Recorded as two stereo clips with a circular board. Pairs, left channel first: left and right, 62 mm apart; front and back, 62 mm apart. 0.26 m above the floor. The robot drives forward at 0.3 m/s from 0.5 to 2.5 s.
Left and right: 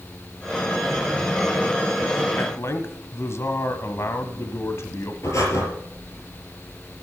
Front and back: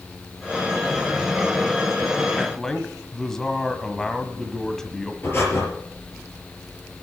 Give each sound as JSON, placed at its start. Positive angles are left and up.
{"t": 2.4, "sound": "a man speaking", "azimuth_deg": 80, "distance_m": 1.3}
{"t": 5.2, "sound": "breathing", "azimuth_deg": 50, "distance_m": 4.5}